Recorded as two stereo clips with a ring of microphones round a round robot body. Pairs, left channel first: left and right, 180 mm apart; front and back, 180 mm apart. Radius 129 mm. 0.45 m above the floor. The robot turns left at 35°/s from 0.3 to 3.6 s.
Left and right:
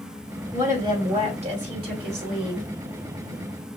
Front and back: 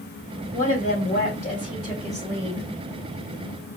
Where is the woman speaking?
15° right, 2.5 m; by 2.6 s 90° right, 2.5 m.